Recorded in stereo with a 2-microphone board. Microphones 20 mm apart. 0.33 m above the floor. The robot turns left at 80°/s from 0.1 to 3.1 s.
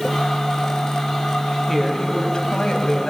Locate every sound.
1.7 s a woman speaking: 165° left, 2.5 m; by 3.1 s 50° left, 2.5 m